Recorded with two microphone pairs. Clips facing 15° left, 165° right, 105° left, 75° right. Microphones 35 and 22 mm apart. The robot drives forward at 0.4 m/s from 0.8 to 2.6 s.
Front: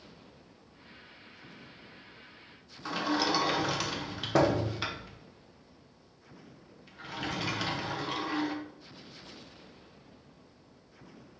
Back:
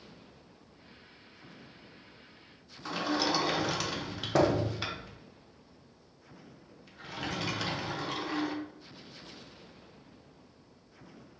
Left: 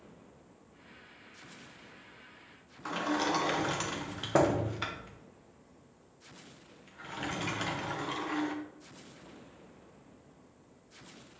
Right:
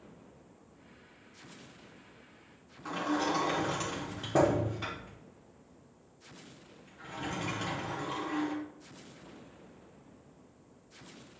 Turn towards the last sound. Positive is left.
turn(degrees=100)